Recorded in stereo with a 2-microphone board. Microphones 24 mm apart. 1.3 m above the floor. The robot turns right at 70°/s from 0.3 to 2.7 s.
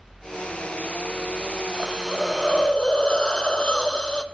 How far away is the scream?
No scream in this recording.